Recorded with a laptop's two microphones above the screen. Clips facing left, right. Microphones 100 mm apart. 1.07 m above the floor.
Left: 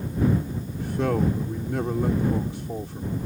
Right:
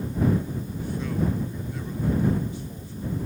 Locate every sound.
0.8 s a man speaking: 75° left (ahead or behind)